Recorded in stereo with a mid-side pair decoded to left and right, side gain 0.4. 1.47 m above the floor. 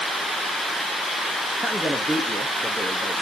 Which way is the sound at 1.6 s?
Straight ahead.